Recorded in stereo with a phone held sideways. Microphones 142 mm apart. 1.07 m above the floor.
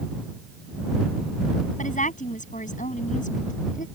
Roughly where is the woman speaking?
Left.